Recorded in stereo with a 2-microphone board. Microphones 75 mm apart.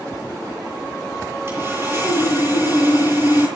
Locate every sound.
1.5 s sawing: 30° right (ahead or behind), 9 m